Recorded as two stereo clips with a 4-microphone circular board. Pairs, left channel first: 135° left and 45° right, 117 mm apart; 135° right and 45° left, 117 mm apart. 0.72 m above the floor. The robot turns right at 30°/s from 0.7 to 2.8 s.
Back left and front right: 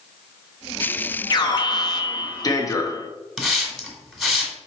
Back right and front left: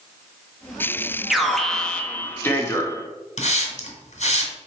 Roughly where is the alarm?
Behind left.